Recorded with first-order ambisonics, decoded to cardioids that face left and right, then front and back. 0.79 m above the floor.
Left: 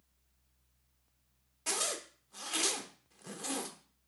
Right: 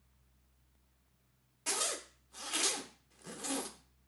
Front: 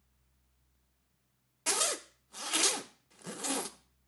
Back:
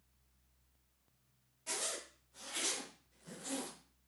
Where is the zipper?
Straight ahead, 0.8 m.